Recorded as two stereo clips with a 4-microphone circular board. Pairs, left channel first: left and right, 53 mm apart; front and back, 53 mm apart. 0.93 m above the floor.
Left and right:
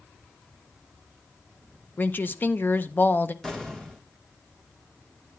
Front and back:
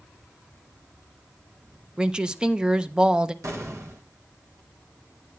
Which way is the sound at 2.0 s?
115° left.